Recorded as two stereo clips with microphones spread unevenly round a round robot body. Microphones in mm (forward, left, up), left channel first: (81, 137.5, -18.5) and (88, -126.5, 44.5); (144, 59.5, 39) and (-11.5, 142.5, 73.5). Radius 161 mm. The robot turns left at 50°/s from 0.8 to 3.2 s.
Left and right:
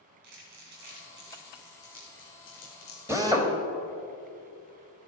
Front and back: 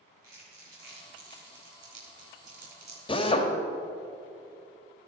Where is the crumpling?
130° right, 3.5 m; by 3.0 s 120° left, 3.5 m.